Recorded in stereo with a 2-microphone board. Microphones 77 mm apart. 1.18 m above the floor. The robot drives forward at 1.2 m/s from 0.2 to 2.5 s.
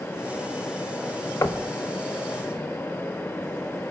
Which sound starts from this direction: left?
Knocking, at 1.4 s.